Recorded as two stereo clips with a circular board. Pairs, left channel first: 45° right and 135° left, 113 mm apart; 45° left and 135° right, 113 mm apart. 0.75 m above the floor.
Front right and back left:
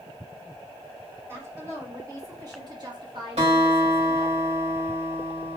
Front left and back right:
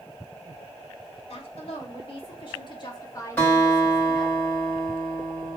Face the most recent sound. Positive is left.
turn(degrees=120)